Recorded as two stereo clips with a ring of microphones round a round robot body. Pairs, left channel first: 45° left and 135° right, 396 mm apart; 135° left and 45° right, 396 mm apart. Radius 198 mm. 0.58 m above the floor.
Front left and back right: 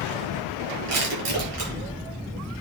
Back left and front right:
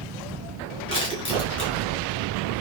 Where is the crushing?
145° right, 6.5 m.